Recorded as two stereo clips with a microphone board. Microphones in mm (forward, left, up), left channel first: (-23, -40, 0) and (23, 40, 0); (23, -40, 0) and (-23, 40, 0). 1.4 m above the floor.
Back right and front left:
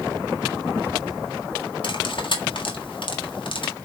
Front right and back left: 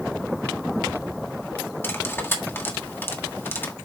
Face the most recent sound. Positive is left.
turn(degrees=-125)